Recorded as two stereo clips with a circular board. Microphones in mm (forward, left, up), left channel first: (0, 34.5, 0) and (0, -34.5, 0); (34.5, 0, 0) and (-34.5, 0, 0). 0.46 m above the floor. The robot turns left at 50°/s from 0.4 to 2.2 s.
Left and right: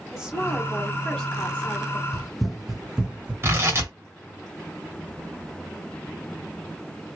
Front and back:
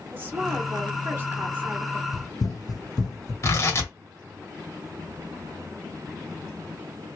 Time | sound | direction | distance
0.1 | a woman speaking | 160° right | 1.5 m
2.1 | running footsteps | 10° left | 0.8 m
3.4 | tearing paper | 45° right | 1.6 m